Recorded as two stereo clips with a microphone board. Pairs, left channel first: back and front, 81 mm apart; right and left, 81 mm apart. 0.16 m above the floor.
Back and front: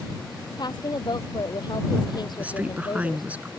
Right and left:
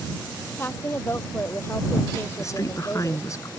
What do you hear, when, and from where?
0.6 s a woman speaking: 150° right
2.4 s a woman speaking: 65° right